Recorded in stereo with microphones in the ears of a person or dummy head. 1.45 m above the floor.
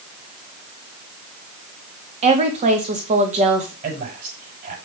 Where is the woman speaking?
35° right (ahead or behind), 2.5 m.